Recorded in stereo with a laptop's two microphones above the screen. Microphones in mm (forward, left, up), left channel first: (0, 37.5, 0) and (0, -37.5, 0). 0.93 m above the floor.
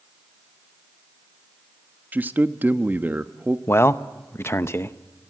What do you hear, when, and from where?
2.1 s a man speaking: 25° right (ahead or behind), 1.1 m
3.7 s a man speaking: 30° left (ahead or behind), 0.7 m